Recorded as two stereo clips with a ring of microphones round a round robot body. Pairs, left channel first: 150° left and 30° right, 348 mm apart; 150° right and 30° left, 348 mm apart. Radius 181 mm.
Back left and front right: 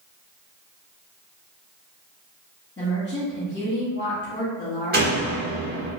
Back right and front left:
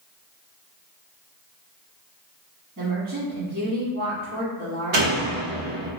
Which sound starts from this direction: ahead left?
A door slam, at 4.9 s.